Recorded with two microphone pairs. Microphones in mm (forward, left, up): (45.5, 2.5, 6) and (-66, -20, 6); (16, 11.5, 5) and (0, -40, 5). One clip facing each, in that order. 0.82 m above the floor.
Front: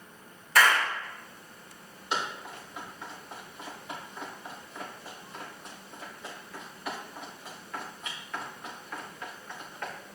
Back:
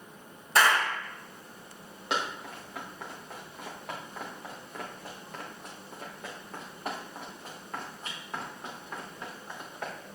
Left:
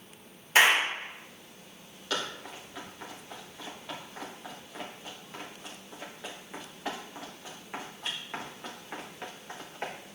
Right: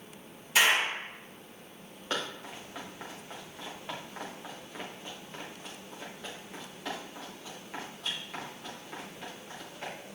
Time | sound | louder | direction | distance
0.6 | a clap | even, left 3 dB | 130° left | 3.5 m
2.1 | running footsteps | back 1 dB, left 1 dB | 170° right | 4 m